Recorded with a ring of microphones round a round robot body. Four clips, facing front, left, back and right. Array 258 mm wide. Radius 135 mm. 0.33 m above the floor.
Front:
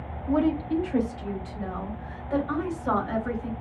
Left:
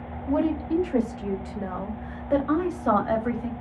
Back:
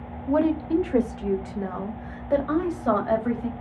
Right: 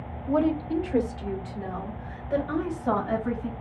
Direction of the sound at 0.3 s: 175° right.